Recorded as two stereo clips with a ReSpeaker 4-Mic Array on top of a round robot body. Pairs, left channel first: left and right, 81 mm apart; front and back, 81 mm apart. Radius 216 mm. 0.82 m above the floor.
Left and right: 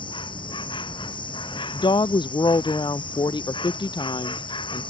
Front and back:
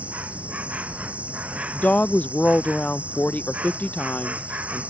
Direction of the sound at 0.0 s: 105° left.